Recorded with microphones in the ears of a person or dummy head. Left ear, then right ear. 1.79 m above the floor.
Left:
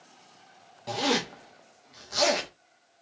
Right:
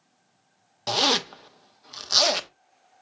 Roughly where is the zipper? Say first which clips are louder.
Right 5 dB; right.